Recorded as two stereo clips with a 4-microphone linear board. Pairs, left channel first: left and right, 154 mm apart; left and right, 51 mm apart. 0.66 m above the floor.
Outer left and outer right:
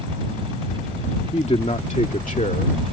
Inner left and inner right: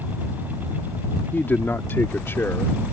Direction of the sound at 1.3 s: 40° left (ahead or behind).